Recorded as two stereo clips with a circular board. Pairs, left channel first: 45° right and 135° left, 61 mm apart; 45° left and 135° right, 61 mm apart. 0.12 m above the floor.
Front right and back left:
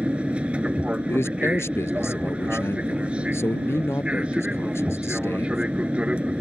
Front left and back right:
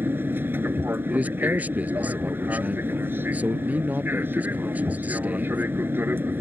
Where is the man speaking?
75° right.